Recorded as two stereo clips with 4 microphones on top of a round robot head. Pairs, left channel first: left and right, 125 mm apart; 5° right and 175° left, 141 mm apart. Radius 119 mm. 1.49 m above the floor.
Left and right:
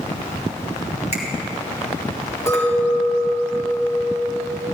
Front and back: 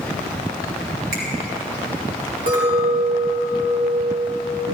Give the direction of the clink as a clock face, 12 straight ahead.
7 o'clock.